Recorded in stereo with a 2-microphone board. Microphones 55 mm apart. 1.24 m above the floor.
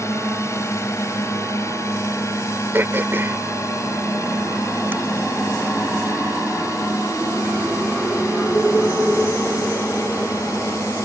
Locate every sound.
0.0 s a drone: 60° left (ahead or behind); by 11.1 s 75° left (ahead or behind)
2.7 s throat clearing: 40° right (ahead or behind)